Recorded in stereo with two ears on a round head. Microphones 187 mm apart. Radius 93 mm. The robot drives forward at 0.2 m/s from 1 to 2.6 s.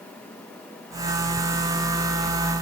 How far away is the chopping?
I don't hear chopping.